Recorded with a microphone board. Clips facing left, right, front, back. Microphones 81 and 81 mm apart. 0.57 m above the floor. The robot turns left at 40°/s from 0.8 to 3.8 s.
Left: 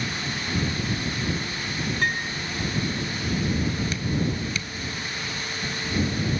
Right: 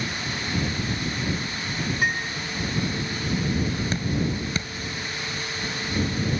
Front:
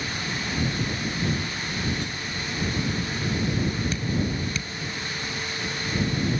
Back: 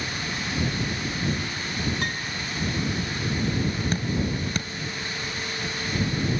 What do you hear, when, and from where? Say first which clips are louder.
2.0 s a piano: right 1 dB, back 2 dB; 170° right; by 2.4 s 175° left
3.9 s dripping: right 1 dB, even; 140° right